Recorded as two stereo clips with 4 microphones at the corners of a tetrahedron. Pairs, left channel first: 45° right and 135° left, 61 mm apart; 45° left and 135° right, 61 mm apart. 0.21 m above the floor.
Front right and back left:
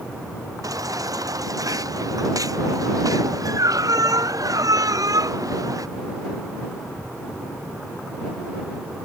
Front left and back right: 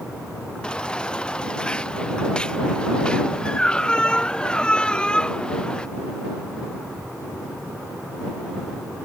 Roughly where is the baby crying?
Behind left.